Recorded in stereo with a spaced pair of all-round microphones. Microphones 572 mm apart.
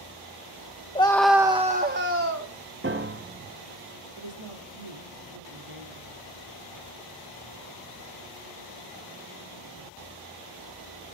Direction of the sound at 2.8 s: 20° right (ahead or behind).